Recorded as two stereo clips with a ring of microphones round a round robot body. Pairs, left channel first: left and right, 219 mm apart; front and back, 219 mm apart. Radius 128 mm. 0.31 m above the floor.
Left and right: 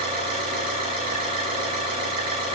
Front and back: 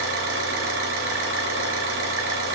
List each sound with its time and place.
0.0 s an engine running: 160° right, 5.5 m